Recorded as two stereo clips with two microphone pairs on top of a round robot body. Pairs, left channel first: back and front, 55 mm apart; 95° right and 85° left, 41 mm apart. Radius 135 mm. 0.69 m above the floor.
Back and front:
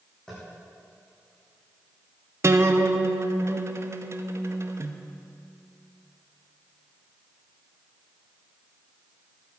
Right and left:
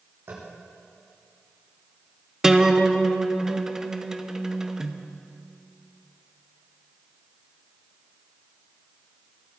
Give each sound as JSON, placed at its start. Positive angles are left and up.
{"t": 0.3, "sound": "tapping", "azimuth_deg": 95, "distance_m": 7.5}
{"t": 2.4, "sound": "a guitar", "azimuth_deg": 20, "distance_m": 1.2}